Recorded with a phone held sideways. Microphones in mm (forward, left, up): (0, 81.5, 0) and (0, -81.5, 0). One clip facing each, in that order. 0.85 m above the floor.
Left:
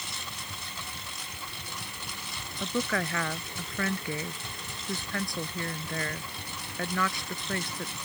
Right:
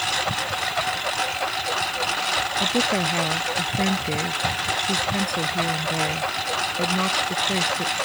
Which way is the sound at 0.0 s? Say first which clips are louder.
Right 16 dB; 85° right.